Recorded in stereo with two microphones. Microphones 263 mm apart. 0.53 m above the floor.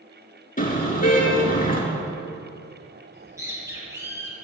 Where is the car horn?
30° left (ahead or behind), 4.5 m.